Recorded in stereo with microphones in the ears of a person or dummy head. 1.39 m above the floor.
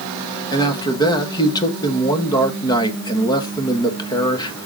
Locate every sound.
0.5 s a man speaking: 20° left (ahead or behind), 1.8 m